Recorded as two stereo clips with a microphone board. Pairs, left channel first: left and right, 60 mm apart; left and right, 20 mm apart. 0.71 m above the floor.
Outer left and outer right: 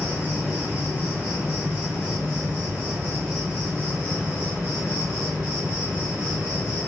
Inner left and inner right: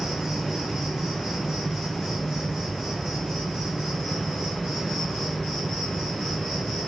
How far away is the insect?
About 1.5 m.